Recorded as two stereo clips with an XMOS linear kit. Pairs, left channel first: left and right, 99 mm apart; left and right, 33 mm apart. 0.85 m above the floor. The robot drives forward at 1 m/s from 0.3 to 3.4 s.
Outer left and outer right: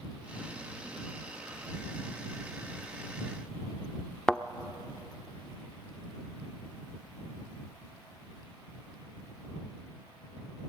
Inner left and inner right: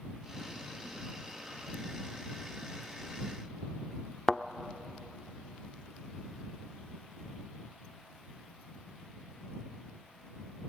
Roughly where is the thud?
Centre.